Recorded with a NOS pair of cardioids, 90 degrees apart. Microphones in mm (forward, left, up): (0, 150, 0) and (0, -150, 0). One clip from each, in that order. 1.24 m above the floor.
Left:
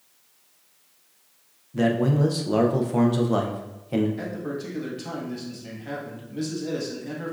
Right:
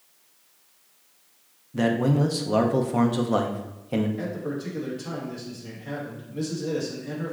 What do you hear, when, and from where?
1.7 s a man speaking: 5° right, 0.7 m
4.2 s a man speaking: 20° left, 1.7 m